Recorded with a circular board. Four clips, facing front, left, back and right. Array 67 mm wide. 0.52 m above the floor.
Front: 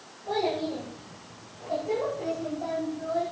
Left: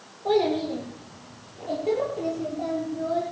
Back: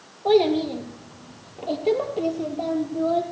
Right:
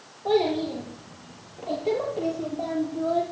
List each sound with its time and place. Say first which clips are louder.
0.2 s a child speaking: even, back 9 dB; straight behind, 7.5 m; by 3.2 s 160° right, 8 m